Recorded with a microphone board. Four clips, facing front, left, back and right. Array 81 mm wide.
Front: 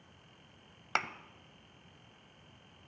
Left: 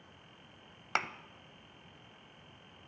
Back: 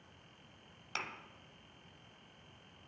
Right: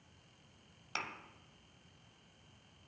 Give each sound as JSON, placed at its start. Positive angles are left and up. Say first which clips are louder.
{"t": 0.9, "sound": "a thud", "louder": "left 8 dB, front 9 dB", "azimuth_deg": 45, "distance_m": 0.7}